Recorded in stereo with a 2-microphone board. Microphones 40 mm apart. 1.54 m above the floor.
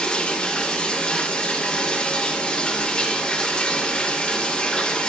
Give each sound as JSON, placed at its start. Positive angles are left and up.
{"t": 0.0, "sound": "running water", "side_deg": 20, "distance_m": 1.0}